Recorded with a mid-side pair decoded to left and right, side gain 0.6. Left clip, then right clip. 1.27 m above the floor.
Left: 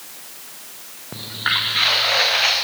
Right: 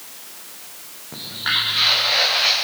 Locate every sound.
1.1 s footsteps: 25° left, 5 m; by 2.5 s 35° left, 4.5 m